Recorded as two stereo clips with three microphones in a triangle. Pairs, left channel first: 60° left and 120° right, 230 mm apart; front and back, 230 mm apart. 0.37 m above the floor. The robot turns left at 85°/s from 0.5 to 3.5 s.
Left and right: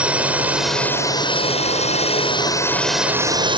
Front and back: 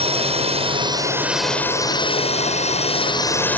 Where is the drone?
160° left; by 3.6 s 75° right.